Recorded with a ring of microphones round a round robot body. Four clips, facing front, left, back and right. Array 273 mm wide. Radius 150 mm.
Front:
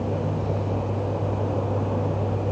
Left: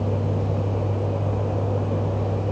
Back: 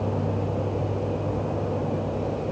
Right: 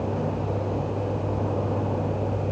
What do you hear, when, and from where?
Only background noise.